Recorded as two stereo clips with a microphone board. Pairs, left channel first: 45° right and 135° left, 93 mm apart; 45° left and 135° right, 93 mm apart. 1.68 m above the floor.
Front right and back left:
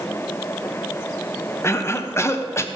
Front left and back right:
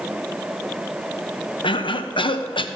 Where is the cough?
15° left, 0.7 m.